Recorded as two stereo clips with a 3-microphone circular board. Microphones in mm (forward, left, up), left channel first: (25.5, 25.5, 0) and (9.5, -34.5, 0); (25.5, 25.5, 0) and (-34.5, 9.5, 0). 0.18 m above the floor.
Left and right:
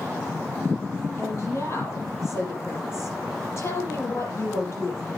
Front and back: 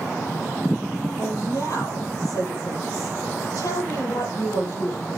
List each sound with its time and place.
1.2 s a woman speaking: 35° left, 6 m